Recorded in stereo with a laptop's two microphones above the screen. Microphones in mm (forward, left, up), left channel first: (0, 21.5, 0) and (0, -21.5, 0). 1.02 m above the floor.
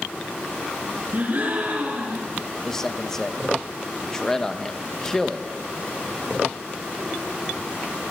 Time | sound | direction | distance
1.1 | a gasp | 50° right (ahead or behind) | 6.5 m
2.6 | a man speaking | 15° left (ahead or behind) | 1.1 m